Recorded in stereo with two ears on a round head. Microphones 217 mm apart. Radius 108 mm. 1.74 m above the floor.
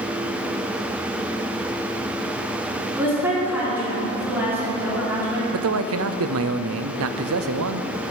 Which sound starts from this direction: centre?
A woman speaking, at 3.0 s.